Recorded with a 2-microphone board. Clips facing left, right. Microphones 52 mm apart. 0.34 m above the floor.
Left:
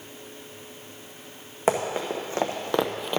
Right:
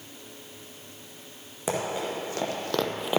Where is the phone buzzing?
I don't hear a phone buzzing.